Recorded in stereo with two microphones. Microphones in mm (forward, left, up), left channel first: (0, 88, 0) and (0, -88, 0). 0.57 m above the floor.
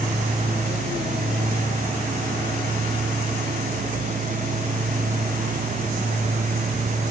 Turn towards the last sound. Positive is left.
No sound to turn to.